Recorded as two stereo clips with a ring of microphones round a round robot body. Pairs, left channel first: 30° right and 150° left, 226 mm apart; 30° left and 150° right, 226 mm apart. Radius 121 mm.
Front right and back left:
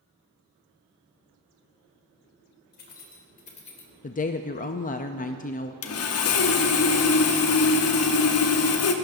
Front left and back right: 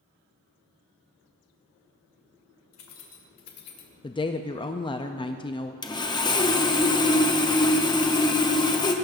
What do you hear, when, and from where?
2.7 s keys jangling: 20° left, 2 m; by 3.9 s 40° left, 1.4 m
4.0 s a woman speaking: 20° right, 0.5 m
5.8 s sawing: 40° right, 0.9 m